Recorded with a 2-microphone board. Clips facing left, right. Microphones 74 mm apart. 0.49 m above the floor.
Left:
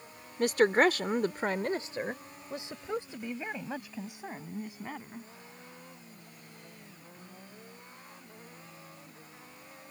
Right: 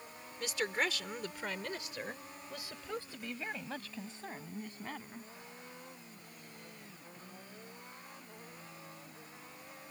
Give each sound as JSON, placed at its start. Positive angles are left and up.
{"t": 0.4, "sound": "a woman speaking", "side_deg": 50}